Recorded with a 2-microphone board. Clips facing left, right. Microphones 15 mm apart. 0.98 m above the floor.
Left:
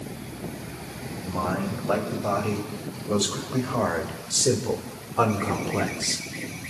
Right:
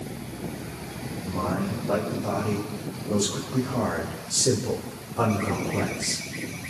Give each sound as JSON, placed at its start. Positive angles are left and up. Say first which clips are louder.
{"t": 1.2, "sound": "a man speaking", "louder": "left 1 dB", "side_deg": 85, "distance_m": 5.0}